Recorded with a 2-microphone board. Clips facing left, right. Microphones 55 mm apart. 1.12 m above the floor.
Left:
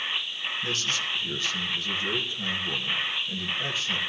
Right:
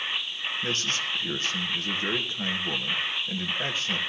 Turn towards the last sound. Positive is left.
turn(degrees=-40)  # may be behind; listen again after turning